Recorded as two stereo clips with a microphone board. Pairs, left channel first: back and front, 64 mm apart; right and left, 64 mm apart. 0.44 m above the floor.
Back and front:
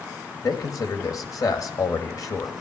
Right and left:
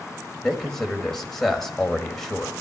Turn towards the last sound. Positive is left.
turn(degrees=-175)